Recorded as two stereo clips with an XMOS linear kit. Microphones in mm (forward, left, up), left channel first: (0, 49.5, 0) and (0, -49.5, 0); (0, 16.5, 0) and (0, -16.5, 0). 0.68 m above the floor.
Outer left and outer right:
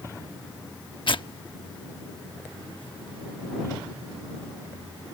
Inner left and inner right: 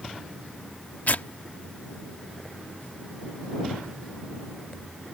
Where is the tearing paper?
55° left (ahead or behind).